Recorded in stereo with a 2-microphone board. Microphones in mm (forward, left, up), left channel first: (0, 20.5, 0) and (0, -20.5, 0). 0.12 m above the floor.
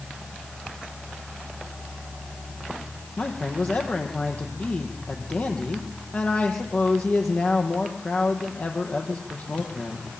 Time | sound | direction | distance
3.2 | a man speaking | 35° left (ahead or behind) | 5 m